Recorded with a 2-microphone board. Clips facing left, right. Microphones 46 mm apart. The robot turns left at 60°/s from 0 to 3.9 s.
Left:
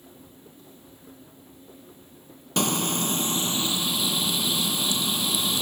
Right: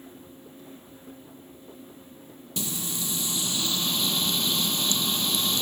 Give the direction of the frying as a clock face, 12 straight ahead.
9 o'clock.